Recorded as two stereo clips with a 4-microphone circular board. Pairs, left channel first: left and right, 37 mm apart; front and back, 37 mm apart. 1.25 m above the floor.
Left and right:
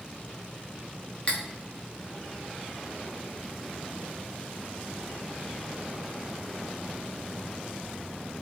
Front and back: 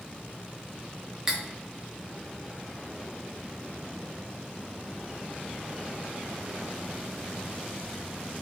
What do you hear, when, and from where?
1.3 s cutlery clinking: 115° left, 0.5 m